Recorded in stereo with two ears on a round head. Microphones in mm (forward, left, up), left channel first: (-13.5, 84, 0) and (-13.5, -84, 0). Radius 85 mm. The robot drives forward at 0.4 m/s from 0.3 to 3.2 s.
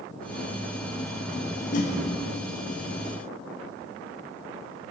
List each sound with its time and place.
1.7 s a whoosh: 45° left (ahead or behind), 0.7 m; by 1.9 s 40° left (ahead or behind), 0.7 m